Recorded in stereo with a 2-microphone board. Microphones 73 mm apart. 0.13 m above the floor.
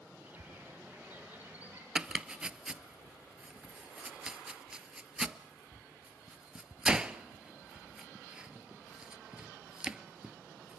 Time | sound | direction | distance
0.2 | a bird | 20° right (ahead or behind) | 4 m
1.9 | chopping | 15° right (ahead or behind) | 0.6 m